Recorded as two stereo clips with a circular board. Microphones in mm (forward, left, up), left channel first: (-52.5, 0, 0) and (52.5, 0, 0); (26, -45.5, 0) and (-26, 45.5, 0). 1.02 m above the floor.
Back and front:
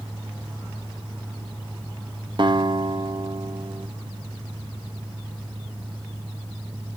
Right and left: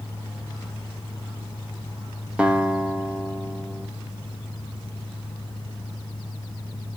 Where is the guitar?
40° left, 0.8 m.